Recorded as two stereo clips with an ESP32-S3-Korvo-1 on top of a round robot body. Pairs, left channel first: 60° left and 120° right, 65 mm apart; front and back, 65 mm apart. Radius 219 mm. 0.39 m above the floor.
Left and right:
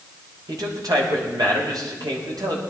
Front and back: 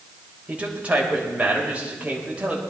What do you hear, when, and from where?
0.5 s a man speaking: 110° right, 3.5 m